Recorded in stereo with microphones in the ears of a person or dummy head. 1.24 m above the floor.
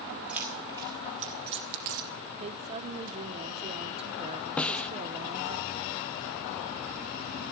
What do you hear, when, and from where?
0.3 s keys jangling: 5° right (ahead or behind), 1.4 m; by 2.1 s 50° right (ahead or behind), 0.7 m
2.4 s a woman speaking: 30° right (ahead or behind), 0.5 m
4.6 s a snare drum: 5° left (ahead or behind), 0.6 m